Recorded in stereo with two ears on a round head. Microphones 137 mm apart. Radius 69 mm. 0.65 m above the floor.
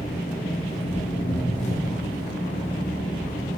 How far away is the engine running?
About 7 m.